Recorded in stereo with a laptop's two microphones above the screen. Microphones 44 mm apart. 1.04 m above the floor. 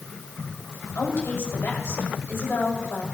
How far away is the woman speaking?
About 5.5 m.